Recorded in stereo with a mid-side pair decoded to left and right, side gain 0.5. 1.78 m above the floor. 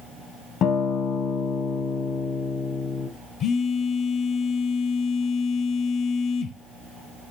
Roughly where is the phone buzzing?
Ahead left.